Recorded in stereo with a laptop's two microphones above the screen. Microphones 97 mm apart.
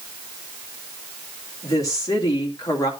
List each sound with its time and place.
1.6 s a woman speaking: 40° left (ahead or behind), 2.5 m